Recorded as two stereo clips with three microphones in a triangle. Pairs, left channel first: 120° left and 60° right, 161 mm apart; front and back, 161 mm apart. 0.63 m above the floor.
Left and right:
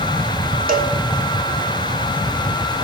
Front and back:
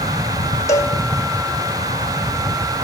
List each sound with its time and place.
0.7 s a cowbell: 70° right, 2 m